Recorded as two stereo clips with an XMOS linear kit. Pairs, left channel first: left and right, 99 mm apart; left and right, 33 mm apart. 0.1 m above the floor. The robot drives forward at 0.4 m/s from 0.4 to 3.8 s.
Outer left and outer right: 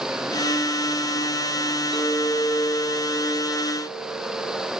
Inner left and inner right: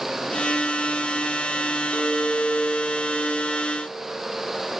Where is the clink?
65° left (ahead or behind), 3 m; by 4.7 s 60° left (ahead or behind), 3 m.